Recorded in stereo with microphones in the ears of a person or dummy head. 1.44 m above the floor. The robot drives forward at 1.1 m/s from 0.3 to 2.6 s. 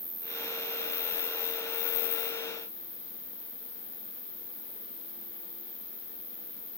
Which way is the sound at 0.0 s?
15° left (ahead or behind).